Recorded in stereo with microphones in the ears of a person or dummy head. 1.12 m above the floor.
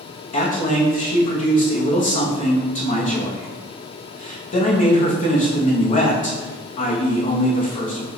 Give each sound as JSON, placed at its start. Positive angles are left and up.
{"t": 0.3, "sound": "a man speaking", "side_deg": 45, "distance_m": 0.9}